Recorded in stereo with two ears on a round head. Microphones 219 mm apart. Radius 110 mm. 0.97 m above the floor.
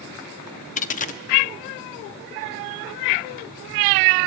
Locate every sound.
0.8 s a dropped coin: 30° left (ahead or behind), 0.7 m